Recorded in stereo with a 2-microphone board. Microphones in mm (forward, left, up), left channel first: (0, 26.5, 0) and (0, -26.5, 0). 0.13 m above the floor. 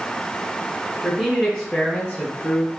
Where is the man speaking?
15° right (ahead or behind), 1.6 m; by 2.7 s 35° left (ahead or behind), 1.9 m.